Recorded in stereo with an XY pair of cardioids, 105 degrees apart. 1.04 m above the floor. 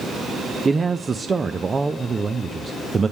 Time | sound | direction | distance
0.7 | a man speaking | 30° right | 0.6 m